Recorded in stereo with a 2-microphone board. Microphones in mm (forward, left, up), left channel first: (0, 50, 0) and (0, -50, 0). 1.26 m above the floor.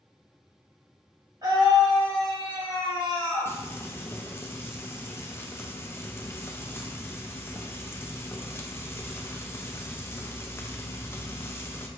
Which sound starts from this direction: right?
A scream, at 1.4 s.